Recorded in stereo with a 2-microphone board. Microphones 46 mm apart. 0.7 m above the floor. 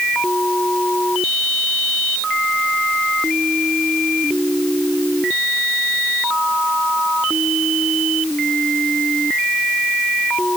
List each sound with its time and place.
Only background noise.